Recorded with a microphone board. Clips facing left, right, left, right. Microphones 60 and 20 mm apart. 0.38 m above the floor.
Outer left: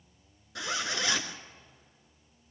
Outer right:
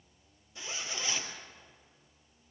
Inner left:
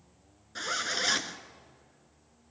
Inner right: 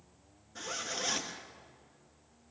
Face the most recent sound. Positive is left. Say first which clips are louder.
# outer left 7 dB, inner left 6 dB
turn(degrees=75)  # may be behind; listen again after turning